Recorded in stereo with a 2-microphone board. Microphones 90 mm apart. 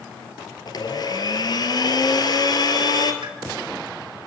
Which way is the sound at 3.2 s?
60° right (ahead or behind).